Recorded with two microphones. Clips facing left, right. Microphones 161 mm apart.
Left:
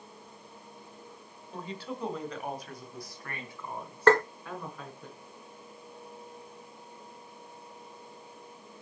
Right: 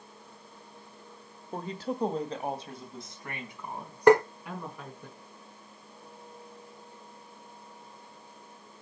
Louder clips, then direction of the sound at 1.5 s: Right 5 dB; 50° right (ahead or behind).